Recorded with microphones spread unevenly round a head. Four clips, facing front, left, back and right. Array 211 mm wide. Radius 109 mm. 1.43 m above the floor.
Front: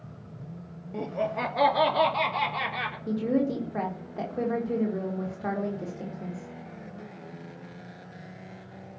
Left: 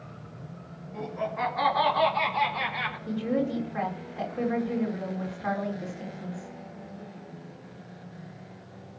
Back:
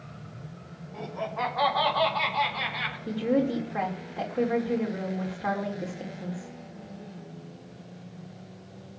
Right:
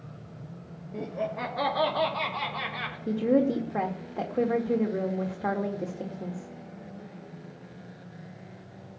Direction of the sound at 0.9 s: 25° right.